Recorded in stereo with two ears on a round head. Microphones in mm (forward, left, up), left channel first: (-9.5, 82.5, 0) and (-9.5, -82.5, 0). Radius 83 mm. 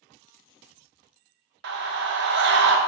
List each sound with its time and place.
1.6 s a scream: 65° right (ahead or behind), 0.8 m